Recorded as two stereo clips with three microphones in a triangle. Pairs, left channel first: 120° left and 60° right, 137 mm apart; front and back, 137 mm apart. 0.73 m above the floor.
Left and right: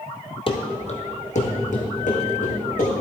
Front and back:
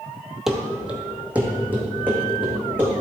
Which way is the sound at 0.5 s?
95° left.